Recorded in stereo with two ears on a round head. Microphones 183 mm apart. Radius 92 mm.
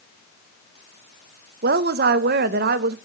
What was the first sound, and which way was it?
A woman speaking, 50° right (ahead or behind).